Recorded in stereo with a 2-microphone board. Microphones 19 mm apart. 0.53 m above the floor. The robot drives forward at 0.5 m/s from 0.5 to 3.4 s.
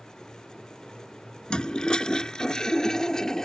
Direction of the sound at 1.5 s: 45° left (ahead or behind).